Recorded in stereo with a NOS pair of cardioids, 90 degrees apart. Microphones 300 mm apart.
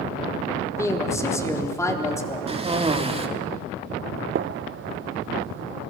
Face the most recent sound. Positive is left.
turn(degrees=-40)